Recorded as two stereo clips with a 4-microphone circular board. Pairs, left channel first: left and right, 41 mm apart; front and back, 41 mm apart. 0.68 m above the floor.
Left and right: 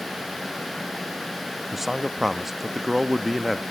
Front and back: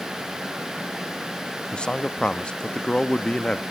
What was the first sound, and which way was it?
A man speaking, 15° right.